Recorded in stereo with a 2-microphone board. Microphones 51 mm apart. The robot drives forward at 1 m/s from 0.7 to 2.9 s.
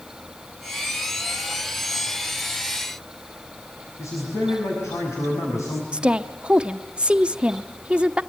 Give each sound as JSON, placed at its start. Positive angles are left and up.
{"t": 4.0, "sound": "a man speaking", "side_deg": 80, "distance_m": 6.0}
{"t": 5.9, "sound": "a woman speaking", "side_deg": -20, "distance_m": 0.7}